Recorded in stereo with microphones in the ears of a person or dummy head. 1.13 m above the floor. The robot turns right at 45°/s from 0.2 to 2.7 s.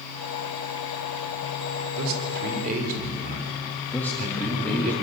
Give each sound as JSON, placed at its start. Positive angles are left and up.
{"t": 2.0, "sound": "a man speaking", "azimuth_deg": -80, "distance_m": 4.0}
{"t": 3.9, "sound": "a man speaking", "side_deg": 5, "distance_m": 2.5}